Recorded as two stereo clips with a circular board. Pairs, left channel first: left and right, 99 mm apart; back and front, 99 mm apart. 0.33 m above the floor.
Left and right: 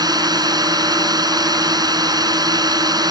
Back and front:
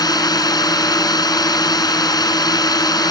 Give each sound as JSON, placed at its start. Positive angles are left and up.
{"t": 0.0, "sound": "a drone", "azimuth_deg": -135}